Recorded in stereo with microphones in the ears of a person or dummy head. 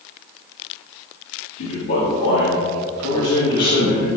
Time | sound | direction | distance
1.6 | a man speaking | 70° left (ahead or behind) | 3 m